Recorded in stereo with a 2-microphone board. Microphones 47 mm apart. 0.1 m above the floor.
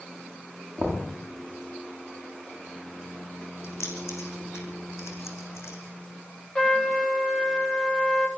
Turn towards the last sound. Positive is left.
turn(degrees=15)  # may be behind; listen again after turning